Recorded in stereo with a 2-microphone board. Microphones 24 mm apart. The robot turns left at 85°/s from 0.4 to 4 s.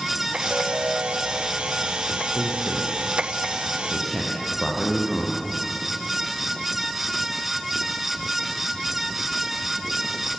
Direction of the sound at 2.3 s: 45° right (ahead or behind).